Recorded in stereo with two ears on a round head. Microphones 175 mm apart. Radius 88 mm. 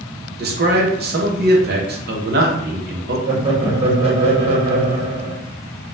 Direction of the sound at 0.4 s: 55° right (ahead or behind).